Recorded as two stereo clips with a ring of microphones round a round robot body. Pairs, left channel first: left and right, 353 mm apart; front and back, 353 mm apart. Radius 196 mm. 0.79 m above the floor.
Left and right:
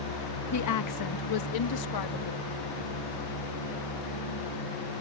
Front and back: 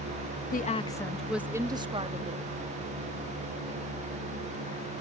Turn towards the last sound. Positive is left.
turn(degrees=110)